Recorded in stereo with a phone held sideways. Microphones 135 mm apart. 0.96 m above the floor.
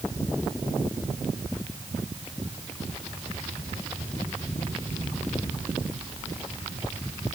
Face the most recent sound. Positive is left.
No sound to turn to.